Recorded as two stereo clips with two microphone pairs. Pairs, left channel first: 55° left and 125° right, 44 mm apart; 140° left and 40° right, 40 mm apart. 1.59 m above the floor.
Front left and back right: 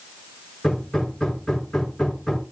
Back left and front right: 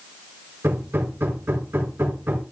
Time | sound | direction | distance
0.6 | hammering | 30° right | 4.5 m